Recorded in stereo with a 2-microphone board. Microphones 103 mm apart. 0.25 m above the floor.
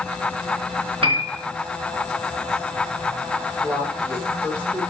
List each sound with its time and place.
1.0 s a piano: 60° right (ahead or behind), 2.5 m
3.6 s a woman speaking: 20° right (ahead or behind), 8 m